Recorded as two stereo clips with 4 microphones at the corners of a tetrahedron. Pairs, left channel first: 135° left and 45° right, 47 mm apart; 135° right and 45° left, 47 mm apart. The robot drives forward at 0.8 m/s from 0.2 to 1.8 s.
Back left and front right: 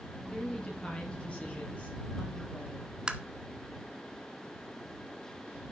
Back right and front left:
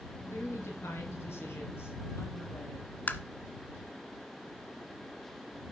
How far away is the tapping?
About 0.8 m.